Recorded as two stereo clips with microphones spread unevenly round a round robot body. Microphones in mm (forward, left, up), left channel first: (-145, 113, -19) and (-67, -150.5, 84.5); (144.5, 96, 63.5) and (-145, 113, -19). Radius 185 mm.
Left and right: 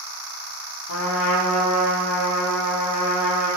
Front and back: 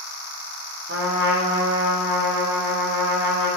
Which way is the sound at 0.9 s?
125° left.